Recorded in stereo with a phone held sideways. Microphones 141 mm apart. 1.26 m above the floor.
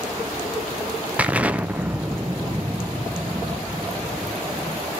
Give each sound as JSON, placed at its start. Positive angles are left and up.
{"t": 1.2, "sound": "an explosion", "side_deg": -10, "distance_m": 0.7}